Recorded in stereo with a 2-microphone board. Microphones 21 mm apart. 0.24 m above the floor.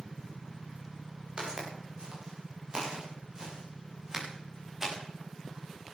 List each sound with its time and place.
1.4 s footsteps: 40° right (ahead or behind), 8.5 m; by 5.0 s 25° right (ahead or behind), 8.5 m